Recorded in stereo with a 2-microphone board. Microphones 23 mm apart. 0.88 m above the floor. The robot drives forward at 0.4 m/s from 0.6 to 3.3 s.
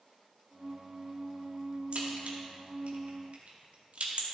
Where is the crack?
70° right (ahead or behind), 1.8 m; by 4.2 s 75° right (ahead or behind), 1.7 m.